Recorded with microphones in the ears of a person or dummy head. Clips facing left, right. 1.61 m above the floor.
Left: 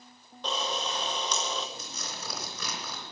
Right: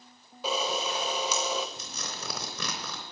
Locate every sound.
0.4 s a camera shutter: 5° right (ahead or behind), 0.9 m
1.8 s tearing paper: 55° right (ahead or behind), 4 m